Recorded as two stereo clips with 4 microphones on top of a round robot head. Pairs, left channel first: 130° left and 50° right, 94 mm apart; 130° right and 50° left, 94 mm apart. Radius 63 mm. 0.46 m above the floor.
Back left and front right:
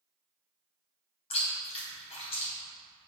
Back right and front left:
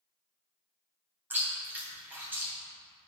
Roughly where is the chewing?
Behind left.